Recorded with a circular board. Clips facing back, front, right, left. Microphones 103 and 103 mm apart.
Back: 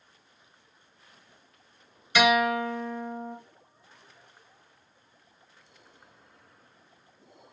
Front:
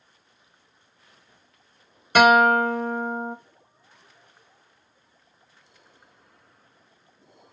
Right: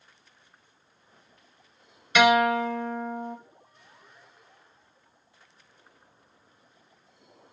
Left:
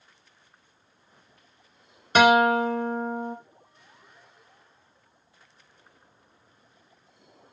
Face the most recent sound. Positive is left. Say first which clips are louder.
# front 7 dB, left 2 dB
turn(degrees=40)